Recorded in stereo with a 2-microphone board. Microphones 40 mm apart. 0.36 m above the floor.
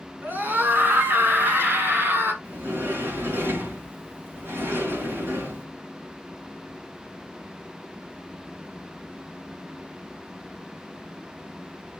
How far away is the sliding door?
About 5 m.